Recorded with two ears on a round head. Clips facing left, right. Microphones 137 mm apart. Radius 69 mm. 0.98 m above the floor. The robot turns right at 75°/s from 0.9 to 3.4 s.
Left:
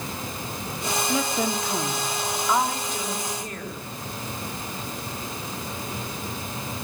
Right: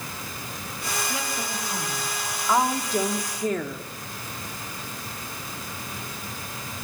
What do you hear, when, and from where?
1.1 s a woman speaking: 80° left, 3 m; by 3.8 s 105° right, 3 m